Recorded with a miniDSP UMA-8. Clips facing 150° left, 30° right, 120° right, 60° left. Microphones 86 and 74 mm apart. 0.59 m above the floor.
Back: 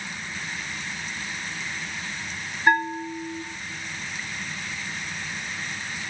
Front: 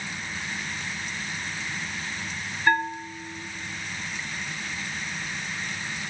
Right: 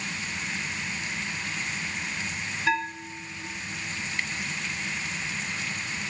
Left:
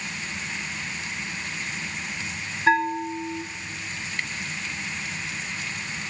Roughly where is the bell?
Left.